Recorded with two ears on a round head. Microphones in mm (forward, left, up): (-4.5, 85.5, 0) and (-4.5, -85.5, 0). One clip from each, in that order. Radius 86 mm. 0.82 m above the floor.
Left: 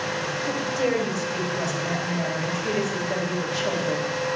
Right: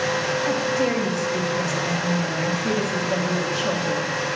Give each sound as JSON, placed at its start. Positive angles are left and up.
{"t": 0.5, "sound": "a woman speaking", "side_deg": 40, "distance_m": 4.0}